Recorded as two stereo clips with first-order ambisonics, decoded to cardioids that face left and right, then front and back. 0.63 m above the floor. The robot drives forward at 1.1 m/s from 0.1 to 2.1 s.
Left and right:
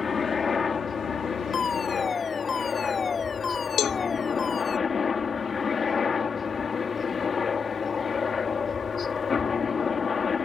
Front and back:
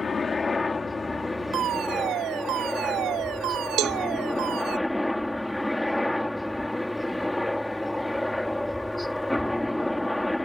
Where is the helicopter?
40° left; by 10.4 s 70° left.